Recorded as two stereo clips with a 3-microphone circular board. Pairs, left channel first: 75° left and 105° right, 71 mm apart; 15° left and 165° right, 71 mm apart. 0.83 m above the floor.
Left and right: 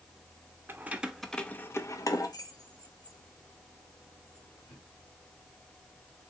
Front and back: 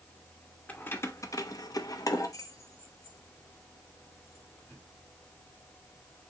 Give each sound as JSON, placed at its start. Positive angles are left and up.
{"t": 0.7, "sound": "keys jangling", "azimuth_deg": -50, "distance_m": 0.7}